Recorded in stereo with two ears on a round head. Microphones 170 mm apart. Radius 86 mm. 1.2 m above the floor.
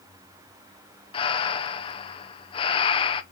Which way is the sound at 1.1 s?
25° left (ahead or behind).